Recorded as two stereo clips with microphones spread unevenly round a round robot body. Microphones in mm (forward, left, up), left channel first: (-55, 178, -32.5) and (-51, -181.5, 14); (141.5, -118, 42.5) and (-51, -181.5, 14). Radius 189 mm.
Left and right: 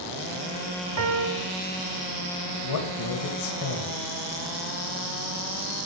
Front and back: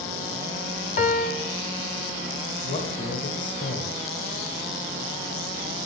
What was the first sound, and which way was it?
A piano, 35° right.